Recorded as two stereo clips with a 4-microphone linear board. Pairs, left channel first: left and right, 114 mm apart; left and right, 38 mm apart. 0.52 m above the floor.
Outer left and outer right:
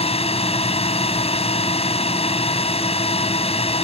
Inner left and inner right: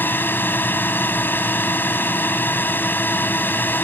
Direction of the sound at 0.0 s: 60° left (ahead or behind).